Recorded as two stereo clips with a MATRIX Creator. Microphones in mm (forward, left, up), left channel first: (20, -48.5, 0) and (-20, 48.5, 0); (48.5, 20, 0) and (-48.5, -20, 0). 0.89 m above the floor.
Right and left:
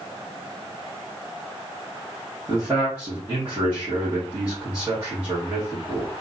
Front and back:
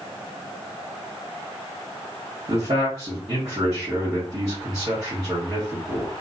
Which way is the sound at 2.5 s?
Straight behind.